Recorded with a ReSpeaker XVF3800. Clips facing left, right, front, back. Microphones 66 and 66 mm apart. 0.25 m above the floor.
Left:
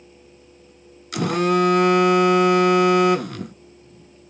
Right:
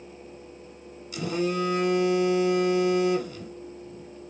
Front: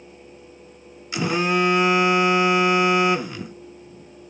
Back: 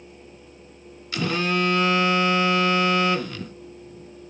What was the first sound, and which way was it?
A phone buzzing, 70° left.